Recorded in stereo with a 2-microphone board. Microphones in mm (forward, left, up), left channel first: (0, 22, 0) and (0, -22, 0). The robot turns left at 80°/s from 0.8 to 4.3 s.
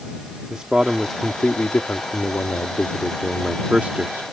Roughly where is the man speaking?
Behind right.